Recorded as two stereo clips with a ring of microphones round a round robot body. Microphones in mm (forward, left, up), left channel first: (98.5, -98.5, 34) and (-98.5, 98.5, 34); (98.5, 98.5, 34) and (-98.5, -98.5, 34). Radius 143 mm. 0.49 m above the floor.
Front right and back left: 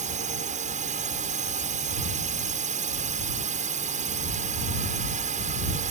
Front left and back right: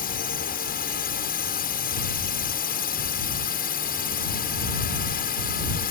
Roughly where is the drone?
Left.